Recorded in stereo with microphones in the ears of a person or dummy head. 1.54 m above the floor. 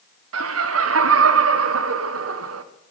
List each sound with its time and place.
0.3 s laughter: 85° right, 1.1 m